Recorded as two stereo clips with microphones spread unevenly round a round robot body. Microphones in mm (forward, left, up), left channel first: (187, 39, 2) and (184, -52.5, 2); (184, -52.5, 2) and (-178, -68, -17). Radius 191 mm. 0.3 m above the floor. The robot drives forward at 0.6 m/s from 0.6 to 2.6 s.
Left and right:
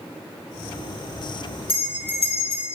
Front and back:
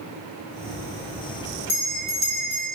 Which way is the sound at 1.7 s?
100° left.